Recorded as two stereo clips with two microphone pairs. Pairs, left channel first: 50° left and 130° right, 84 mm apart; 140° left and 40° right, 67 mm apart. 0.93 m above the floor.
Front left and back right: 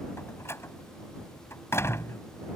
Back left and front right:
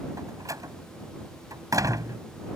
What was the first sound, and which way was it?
A door slam, 10° right.